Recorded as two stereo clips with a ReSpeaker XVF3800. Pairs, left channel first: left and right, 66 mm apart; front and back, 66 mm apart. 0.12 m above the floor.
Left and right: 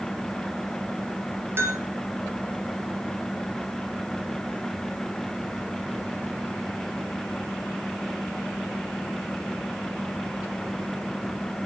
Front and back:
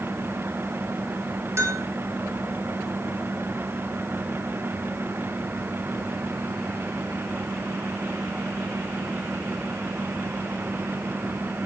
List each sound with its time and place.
1.6 s a bell: 140° right, 1.5 m